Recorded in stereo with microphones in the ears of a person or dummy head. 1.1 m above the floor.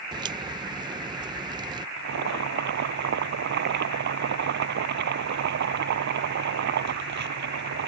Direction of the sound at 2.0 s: 60° right (ahead or behind).